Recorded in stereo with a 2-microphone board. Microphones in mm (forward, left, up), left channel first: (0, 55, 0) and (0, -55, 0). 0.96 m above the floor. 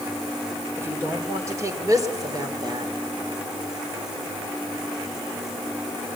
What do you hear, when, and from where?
0.8 s a woman speaking: 25° right (ahead or behind), 3 m; by 3.0 s 40° right (ahead or behind), 3.5 m